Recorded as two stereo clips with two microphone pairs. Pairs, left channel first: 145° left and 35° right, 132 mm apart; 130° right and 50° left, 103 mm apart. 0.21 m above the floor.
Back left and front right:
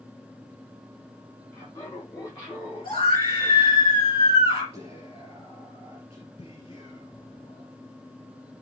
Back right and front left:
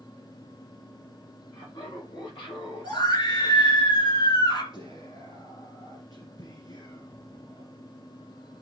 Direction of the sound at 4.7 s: 170° right.